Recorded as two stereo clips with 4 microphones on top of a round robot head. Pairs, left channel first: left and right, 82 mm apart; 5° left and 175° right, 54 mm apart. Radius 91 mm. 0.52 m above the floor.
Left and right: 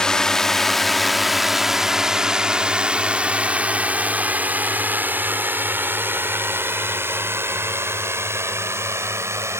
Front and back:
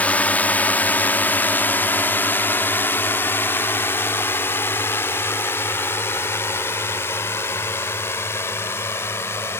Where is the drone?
20° left; by 9.6 s 40° right.